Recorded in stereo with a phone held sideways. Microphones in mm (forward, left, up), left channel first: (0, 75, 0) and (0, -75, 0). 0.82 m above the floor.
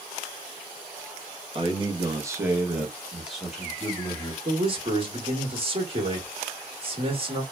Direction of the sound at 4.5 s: 40° right (ahead or behind).